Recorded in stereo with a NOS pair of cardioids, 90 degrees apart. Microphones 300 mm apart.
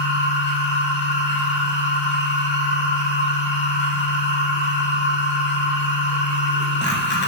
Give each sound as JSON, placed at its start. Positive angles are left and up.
{"t": 0.0, "sound": "a machine running", "azimuth_deg": 35, "distance_m": 0.8}